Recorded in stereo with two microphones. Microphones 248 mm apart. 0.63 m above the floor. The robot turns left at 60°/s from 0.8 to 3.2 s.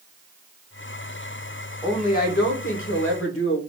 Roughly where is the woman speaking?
Behind.